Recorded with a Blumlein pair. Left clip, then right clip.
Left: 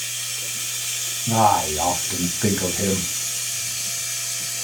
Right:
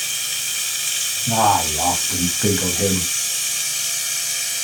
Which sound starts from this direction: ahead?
A man speaking, at 1.3 s.